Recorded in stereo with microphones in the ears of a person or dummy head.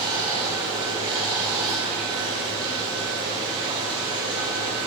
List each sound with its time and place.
0.0 s running water: 20° right (ahead or behind), 1.6 m